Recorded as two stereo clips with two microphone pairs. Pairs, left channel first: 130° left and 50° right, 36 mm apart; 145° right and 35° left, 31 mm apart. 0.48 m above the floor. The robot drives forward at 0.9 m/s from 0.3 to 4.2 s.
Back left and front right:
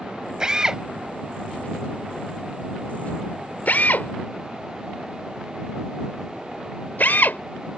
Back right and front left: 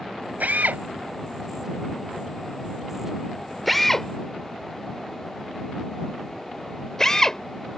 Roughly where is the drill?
Ahead.